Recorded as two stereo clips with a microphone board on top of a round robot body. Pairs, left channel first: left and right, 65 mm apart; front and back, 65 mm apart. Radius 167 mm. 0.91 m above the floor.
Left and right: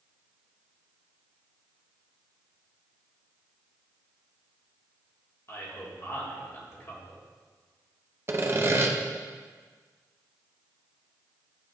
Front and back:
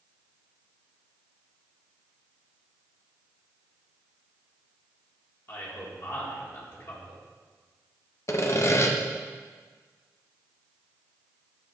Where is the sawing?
40° right, 0.8 m.